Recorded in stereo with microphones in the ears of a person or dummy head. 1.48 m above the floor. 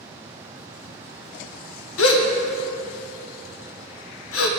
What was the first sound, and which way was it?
A gasp, 80° left.